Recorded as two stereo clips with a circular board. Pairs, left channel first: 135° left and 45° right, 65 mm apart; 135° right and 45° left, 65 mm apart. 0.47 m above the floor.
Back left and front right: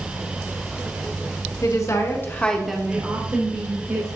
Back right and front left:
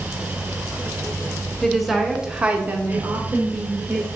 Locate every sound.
1.6 s a woman speaking: 140° left, 1.8 m; by 4.1 s 15° right, 2.5 m